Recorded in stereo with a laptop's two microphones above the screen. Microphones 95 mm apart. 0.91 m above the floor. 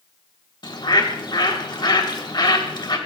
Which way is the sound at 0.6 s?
55° left (ahead or behind).